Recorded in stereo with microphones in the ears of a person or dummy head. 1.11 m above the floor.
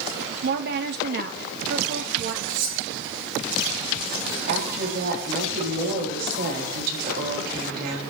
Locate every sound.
0.4 s a woman speaking: 50° right (ahead or behind), 1.3 m
2.5 s cutlery clinking: 55° right (ahead or behind), 7 m
4.5 s a woman speaking: 65° right (ahead or behind), 7.5 m